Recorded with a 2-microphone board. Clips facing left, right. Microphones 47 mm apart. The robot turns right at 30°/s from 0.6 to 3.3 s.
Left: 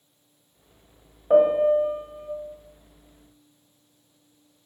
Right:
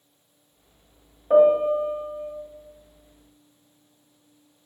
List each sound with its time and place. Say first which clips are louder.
1.3 s a piano: right 1 dB; 20° left, 0.7 m; by 2.3 s 50° left, 0.7 m